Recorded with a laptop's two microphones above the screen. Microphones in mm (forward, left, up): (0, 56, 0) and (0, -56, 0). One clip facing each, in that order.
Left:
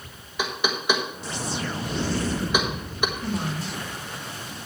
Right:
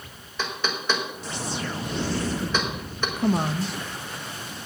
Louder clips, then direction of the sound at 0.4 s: Left 2 dB; 10° left (ahead or behind).